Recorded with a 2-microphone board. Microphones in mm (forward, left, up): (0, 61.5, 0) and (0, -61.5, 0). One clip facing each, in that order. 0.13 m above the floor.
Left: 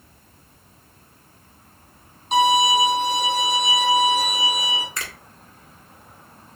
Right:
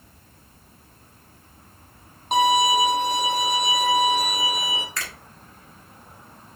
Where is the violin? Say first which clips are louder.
Left 1 dB; 55° right (ahead or behind), 1.0 m.